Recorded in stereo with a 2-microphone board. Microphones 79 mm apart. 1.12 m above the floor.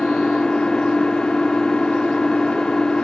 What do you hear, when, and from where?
0.0 s an engine running: 10° left (ahead or behind), 0.8 m